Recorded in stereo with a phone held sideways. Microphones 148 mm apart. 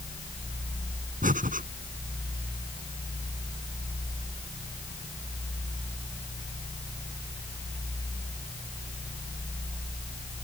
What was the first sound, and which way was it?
Breathing, 65° right (ahead or behind).